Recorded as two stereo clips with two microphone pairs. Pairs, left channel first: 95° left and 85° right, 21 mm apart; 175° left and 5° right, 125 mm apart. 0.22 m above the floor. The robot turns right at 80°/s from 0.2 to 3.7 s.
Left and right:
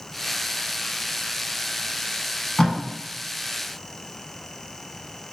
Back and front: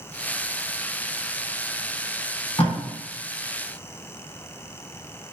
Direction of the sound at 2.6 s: 140° left.